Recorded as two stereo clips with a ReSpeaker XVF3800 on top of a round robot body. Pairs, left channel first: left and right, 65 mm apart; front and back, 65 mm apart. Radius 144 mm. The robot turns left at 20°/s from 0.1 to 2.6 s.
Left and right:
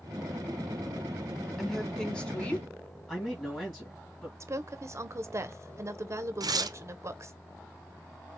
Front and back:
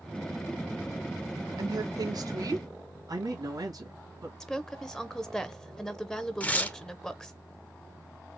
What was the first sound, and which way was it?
A woman speaking, straight behind.